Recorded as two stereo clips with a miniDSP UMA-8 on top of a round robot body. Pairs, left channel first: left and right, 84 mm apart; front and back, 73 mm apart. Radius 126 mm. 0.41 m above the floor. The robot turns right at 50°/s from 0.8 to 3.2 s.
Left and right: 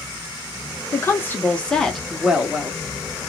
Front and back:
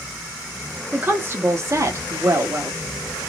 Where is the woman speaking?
125° left, 1.1 m; by 2.7 s 145° right, 1.1 m.